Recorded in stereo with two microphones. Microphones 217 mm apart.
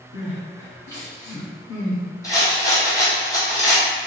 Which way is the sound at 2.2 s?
15° left (ahead or behind).